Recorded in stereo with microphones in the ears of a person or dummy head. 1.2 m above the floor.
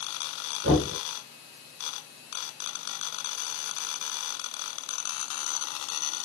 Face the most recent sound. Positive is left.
turn(degrees=-75)  # may be behind; listen again after turning